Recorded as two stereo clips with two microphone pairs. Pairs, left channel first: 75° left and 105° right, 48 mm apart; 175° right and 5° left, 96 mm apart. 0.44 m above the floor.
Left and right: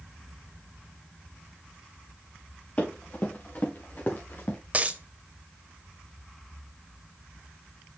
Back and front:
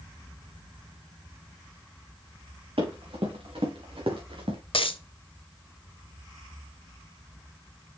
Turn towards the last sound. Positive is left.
turn(degrees=-155)